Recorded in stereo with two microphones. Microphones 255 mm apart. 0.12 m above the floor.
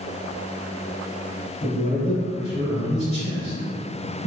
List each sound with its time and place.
1.6 s a man speaking: 30° left (ahead or behind), 1.9 m